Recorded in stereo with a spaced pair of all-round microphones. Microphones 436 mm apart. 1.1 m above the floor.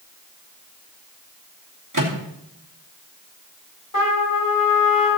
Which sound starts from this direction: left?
A trumpet, at 3.9 s.